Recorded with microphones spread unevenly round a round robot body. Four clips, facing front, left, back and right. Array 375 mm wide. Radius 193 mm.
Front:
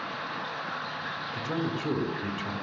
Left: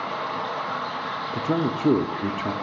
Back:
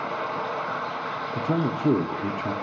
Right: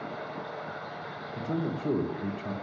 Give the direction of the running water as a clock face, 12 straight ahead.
8 o'clock.